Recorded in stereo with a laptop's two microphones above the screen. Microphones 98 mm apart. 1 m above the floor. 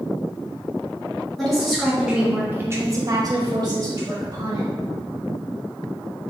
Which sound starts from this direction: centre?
A woman speaking, at 1.4 s.